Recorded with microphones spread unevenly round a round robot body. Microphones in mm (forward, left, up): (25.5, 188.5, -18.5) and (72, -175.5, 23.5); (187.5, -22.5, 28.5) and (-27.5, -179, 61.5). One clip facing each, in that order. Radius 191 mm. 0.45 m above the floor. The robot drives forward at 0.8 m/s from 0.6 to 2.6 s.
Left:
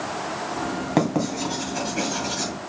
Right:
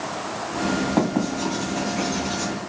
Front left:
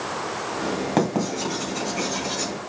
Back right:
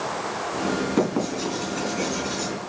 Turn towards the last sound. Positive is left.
turn(degrees=90)